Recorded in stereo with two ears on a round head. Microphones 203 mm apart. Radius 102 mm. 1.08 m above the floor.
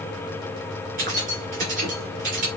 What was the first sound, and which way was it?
Keys jangling, 40° right (ahead or behind).